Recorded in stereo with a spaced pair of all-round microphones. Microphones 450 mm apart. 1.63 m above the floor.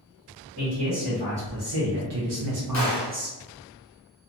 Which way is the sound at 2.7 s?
35° left (ahead or behind).